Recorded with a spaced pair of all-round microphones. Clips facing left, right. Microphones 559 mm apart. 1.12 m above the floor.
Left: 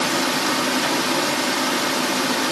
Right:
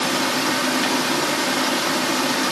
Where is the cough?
No cough in this recording.